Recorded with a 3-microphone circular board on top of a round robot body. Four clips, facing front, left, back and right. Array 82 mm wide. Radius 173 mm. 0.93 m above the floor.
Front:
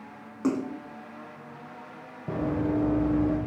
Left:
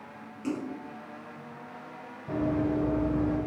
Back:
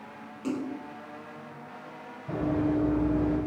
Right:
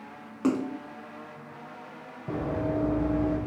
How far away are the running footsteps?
About 3.5 m.